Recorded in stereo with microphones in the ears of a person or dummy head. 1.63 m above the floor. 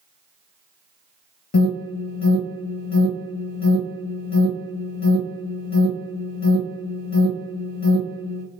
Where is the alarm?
45° left (ahead or behind), 0.9 m.